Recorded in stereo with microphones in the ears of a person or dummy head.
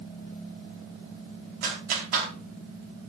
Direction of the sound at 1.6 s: 55° right (ahead or behind).